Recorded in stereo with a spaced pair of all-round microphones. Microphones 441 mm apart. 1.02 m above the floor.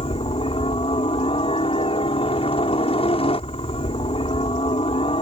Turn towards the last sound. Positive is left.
turn(degrees=10)  # may be behind; listen again after turning